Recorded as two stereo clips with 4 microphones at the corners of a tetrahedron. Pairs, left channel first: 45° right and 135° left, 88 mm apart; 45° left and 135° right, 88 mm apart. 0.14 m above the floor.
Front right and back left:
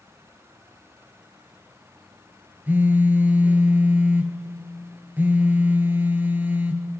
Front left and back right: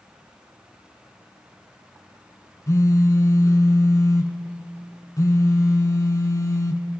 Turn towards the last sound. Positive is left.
turn(degrees=75)